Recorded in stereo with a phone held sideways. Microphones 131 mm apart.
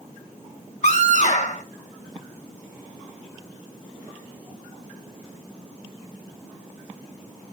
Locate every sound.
0.8 s a scream: 60° left (ahead or behind), 0.5 m